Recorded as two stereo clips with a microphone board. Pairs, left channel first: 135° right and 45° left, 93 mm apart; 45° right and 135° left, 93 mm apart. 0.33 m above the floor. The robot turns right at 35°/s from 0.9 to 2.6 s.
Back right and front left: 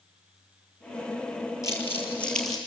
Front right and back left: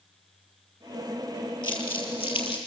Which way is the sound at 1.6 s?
80° right.